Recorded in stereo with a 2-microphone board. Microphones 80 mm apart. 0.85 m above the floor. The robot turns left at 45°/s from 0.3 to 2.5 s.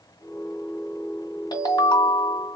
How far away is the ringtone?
About 1.7 m.